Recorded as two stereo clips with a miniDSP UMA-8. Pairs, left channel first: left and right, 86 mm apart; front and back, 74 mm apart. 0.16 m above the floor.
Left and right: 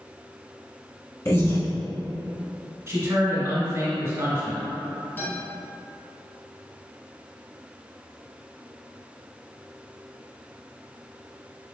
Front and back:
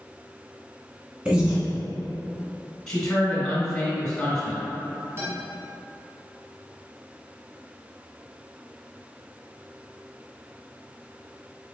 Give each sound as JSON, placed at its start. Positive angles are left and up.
{"t": 1.2, "sound": "breathing", "azimuth_deg": 115, "distance_m": 0.9}
{"t": 2.9, "sound": "a man speaking", "azimuth_deg": -70, "distance_m": 1.4}
{"t": 5.2, "sound": "a guitar", "azimuth_deg": 150, "distance_m": 1.8}